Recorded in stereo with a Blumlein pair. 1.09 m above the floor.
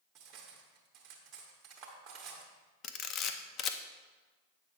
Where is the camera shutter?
30° left, 0.5 m.